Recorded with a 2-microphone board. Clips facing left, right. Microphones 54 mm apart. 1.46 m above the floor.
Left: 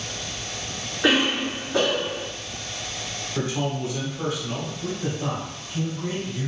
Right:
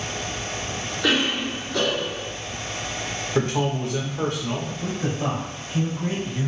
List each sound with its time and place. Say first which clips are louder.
1.0 s a cough: left 2 dB; 20° left (ahead or behind), 1.3 m
3.4 s a man speaking: right 3 dB; 60° right (ahead or behind), 1.1 m
4.8 s a man speaking: right 2 dB; 40° right (ahead or behind), 1.2 m